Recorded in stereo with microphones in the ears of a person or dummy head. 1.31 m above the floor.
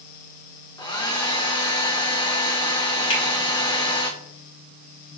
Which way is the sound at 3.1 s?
40° left (ahead or behind).